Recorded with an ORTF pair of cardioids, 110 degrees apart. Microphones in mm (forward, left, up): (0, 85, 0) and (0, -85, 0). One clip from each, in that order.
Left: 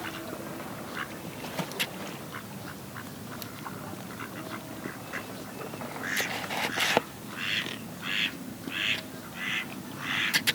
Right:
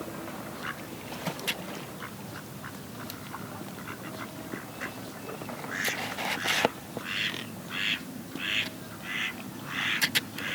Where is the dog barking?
I don't hear a dog barking.